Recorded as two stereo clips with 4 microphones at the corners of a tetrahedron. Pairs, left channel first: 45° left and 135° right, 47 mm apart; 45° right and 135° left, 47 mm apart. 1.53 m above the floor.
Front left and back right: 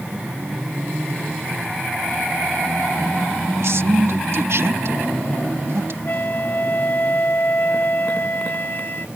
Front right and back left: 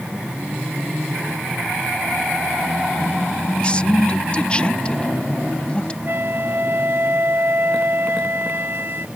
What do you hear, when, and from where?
3.6 s a man speaking: 115° right
6.0 s a flute: 90° left